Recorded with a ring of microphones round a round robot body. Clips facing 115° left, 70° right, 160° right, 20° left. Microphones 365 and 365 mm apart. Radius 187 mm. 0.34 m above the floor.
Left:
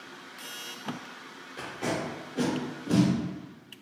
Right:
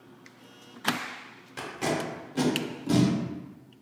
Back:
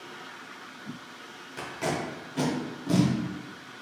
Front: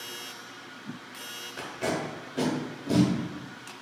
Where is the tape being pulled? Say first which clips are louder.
Right 2 dB, front 1 dB; 105° right, 1.1 m.